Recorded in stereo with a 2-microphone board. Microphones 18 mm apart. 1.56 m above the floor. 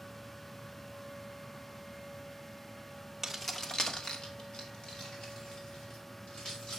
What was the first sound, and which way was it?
Keys jangling, 20° right (ahead or behind).